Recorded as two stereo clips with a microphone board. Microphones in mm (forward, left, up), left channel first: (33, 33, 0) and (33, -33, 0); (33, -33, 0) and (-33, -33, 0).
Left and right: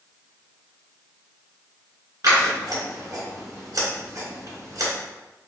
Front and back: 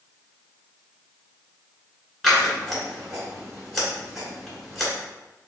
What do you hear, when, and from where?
2.2 s scissors: 90° right, 1.8 m